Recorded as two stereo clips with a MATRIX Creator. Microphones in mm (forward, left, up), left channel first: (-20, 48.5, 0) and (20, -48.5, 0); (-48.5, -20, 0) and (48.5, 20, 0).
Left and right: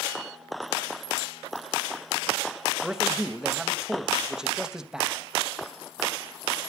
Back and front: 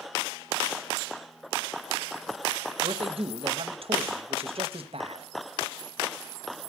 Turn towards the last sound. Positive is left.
turn(degrees=15)